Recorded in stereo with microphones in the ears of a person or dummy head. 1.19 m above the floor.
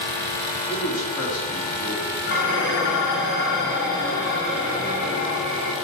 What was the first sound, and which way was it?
A man speaking, 60° left (ahead or behind).